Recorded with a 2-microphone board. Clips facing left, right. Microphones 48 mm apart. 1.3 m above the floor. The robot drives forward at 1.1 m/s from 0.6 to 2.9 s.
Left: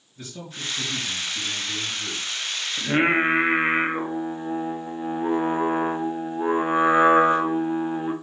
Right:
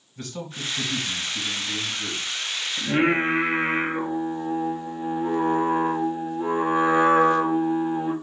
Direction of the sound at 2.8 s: 20° left (ahead or behind).